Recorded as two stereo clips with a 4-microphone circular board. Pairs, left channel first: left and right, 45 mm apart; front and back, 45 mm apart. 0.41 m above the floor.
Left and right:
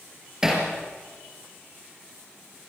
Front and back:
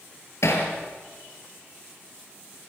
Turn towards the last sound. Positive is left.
turn(degrees=-15)